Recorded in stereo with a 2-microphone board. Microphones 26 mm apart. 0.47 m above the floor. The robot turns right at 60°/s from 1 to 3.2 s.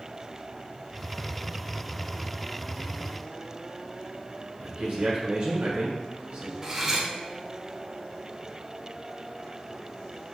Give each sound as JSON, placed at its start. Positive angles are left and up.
{"t": 4.6, "sound": "a man speaking", "side_deg": -55, "distance_m": 1.3}
{"t": 6.6, "sound": "cutlery clinking", "side_deg": -20, "distance_m": 0.8}